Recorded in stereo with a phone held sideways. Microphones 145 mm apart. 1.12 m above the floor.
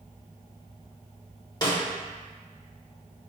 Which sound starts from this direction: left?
A snare drum, at 1.6 s.